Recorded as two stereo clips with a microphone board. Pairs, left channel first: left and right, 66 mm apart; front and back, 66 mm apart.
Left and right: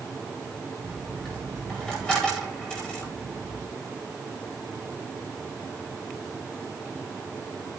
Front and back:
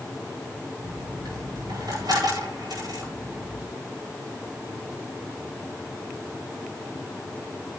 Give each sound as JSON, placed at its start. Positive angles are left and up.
{"t": 0.8, "sound": "a dropped coin", "azimuth_deg": 165, "distance_m": 9.0}